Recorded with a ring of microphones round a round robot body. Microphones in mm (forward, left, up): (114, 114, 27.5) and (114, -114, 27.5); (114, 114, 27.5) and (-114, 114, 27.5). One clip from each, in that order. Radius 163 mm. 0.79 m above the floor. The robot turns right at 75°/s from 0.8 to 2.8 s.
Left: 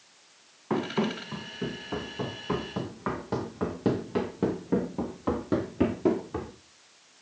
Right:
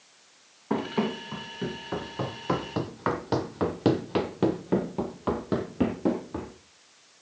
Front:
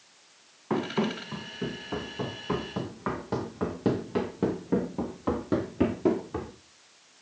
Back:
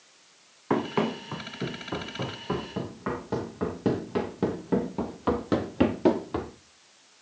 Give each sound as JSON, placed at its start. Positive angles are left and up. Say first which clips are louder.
{"t": 0.7, "sound": "running footsteps", "louder": "even, back 2 dB", "azimuth_deg": 150, "distance_m": 2.5}